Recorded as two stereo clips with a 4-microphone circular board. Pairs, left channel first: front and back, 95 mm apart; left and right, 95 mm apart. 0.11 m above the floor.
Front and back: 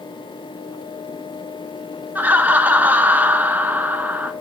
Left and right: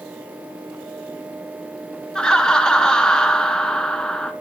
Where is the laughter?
155° left, 1.1 m.